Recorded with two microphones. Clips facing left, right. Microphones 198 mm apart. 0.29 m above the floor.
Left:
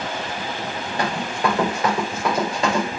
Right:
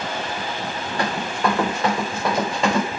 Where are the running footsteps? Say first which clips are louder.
Even; 20° left (ahead or behind), 3 m; by 2.9 s centre (ahead or behind), 2.5 m.